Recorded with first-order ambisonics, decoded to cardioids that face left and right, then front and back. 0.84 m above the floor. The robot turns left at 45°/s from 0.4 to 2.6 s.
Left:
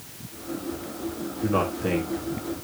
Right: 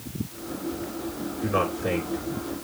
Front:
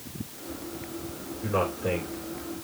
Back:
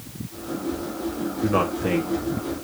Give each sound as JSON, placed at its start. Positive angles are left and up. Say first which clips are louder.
{"t": 1.4, "sound": "a man speaking", "louder": "even, back 4 dB", "azimuth_deg": 165, "distance_m": 1.7}